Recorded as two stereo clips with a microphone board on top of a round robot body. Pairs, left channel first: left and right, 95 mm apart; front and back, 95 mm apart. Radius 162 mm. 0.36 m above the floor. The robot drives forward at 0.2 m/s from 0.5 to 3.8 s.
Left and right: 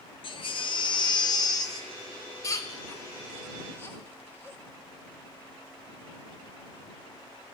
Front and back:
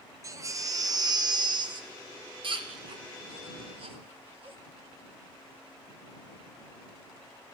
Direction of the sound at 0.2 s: 120° left.